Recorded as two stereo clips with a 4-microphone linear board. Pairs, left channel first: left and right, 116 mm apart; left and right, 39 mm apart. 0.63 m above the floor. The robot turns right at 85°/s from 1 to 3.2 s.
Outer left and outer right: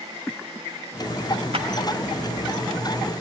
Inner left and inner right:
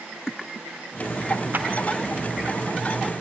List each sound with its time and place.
1.5 s a clap: 60° right (ahead or behind), 1.7 m; by 1.7 s 50° right (ahead or behind), 1.7 m